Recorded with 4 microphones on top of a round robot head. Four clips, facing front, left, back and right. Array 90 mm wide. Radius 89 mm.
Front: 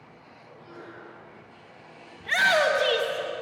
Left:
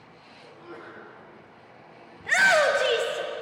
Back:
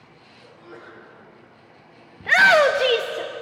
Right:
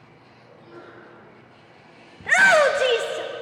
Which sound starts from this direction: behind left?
A sneeze, at 0.4 s.